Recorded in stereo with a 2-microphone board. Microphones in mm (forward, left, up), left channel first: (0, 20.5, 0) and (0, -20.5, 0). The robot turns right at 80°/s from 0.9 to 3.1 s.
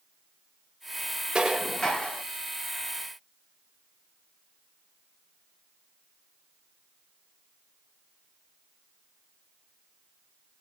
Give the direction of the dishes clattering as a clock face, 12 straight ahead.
1 o'clock.